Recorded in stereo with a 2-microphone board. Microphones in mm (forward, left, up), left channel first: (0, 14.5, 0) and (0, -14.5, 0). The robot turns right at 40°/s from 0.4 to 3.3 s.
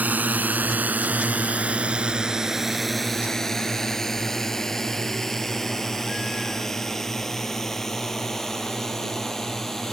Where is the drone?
70° right (ahead or behind); by 9.9 s 15° left (ahead or behind).